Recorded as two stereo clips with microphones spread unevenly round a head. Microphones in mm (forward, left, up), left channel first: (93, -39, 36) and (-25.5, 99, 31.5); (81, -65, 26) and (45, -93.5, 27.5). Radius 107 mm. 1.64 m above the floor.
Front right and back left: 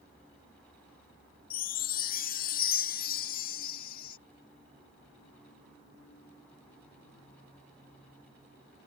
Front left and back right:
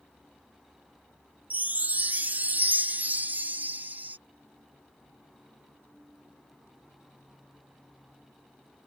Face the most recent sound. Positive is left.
turn(degrees=-95)